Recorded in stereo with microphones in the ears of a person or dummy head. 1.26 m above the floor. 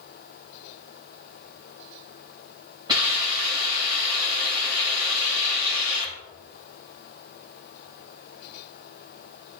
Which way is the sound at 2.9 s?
35° right (ahead or behind).